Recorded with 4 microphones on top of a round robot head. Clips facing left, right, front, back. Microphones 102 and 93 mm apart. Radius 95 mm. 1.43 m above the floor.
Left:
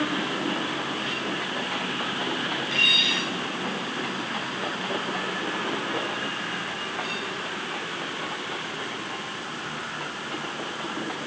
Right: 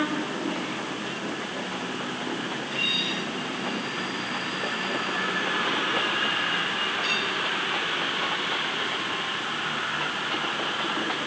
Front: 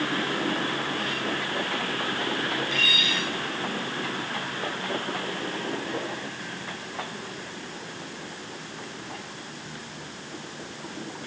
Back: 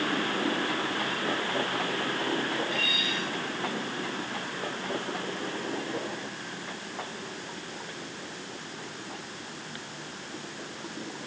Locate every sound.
Only background noise.